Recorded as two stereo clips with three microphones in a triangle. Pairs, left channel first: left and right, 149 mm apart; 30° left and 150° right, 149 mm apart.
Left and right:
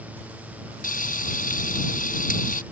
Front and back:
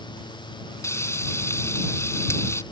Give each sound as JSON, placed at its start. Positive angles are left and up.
{"t": 0.8, "sound": "frying", "azimuth_deg": 100}